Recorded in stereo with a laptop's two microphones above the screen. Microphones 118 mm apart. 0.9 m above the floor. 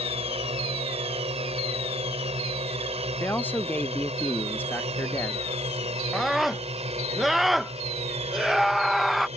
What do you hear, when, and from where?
0.0 s a drone: 60° right (ahead or behind); by 9.4 s 65° right (ahead or behind)
3.2 s a man speaking: 15° left (ahead or behind)
6.1 s a scream: centre (ahead or behind)